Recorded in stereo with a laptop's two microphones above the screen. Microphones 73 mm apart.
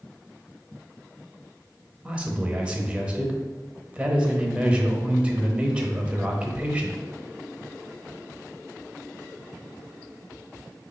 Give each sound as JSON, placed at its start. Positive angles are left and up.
{"t": 2.0, "sound": "a man speaking", "side_deg": -15, "distance_m": 1.0}